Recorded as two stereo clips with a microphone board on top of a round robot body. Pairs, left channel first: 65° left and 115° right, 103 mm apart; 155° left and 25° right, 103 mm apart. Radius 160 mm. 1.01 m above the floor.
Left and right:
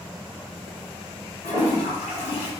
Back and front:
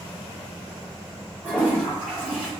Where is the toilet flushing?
60° left, 1.5 m.